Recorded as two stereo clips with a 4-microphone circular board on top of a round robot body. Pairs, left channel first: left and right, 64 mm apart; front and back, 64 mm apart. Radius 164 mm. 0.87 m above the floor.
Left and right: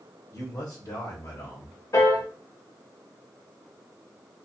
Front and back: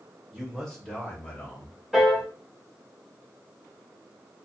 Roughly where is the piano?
Left.